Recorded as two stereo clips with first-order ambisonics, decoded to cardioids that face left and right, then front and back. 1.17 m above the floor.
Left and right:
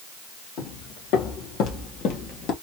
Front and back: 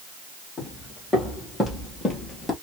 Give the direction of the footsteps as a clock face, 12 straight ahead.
9 o'clock.